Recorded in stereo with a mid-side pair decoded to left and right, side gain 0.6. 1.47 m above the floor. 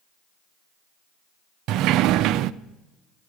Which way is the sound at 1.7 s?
65° right.